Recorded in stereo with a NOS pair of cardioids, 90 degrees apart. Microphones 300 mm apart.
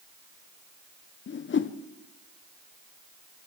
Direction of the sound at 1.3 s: 40° left.